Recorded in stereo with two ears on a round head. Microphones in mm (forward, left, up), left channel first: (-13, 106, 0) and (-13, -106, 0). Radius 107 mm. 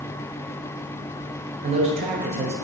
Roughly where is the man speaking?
Right.